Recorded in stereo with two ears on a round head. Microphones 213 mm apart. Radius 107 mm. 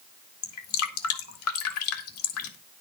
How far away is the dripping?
About 2.5 m.